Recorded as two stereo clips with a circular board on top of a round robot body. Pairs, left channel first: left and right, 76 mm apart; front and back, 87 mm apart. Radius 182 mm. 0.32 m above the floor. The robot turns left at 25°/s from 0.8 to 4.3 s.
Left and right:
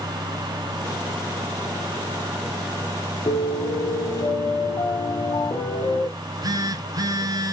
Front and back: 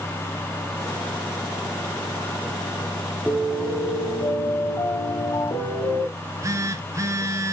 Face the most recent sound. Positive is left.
turn(degrees=-125)